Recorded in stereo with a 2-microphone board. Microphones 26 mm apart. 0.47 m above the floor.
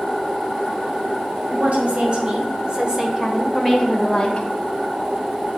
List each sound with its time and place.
1.5 s a woman speaking: 55° right (ahead or behind), 2 m; by 4.5 s 25° left (ahead or behind), 1.4 m